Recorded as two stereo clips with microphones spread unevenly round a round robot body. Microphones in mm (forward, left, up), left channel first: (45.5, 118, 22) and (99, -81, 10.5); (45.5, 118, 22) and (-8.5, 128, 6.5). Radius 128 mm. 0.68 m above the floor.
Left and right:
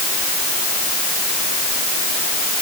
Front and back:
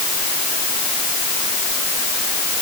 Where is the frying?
I don't hear frying.